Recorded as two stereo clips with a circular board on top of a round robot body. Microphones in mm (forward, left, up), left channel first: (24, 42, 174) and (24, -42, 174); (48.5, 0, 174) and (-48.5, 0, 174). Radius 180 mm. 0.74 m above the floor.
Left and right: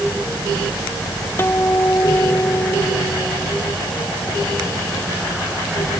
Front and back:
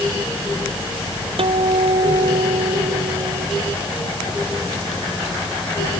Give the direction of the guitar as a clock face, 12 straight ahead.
7 o'clock.